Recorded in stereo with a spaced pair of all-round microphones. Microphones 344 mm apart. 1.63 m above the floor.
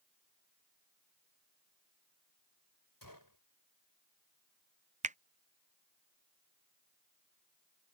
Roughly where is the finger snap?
Right.